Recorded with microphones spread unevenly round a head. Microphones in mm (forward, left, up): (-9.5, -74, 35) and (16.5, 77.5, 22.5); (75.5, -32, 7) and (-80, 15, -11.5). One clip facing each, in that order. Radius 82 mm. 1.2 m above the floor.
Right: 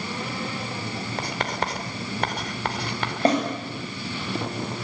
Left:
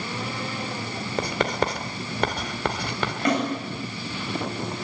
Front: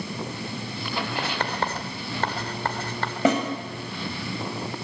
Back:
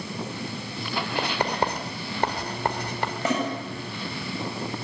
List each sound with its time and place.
1.2 s writing: 85° left, 2.5 m
3.2 s a snare drum: 40° right, 8 m